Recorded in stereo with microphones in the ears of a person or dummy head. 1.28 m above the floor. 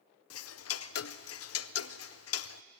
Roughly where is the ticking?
Left.